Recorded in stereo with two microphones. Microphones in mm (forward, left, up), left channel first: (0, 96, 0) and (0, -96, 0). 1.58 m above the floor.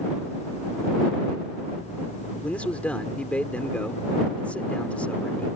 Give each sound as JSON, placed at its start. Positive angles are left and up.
{"t": 2.4, "sound": "a man speaking", "side_deg": 5}